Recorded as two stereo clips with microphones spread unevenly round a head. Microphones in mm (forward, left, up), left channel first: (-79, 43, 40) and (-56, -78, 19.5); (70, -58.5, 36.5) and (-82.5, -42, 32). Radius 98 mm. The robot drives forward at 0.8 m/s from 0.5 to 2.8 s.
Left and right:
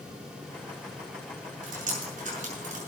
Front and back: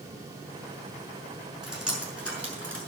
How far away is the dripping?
About 6 m.